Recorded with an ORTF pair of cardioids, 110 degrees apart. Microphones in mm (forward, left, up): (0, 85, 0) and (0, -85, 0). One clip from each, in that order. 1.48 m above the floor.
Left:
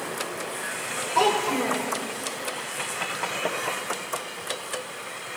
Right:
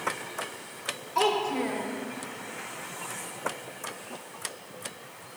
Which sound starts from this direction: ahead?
A child speaking, at 1.1 s.